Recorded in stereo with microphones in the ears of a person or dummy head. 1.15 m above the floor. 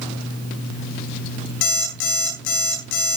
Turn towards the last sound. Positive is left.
turn(degrees=80)